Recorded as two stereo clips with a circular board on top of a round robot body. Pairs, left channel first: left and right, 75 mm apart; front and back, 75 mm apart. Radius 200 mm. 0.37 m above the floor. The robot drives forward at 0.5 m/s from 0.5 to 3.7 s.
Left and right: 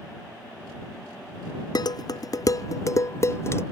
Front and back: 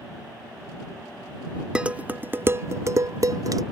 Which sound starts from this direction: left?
Dishes clattering, at 1.8 s.